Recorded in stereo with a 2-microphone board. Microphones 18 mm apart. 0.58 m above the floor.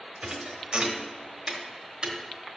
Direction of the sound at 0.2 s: 60° right (ahead or behind).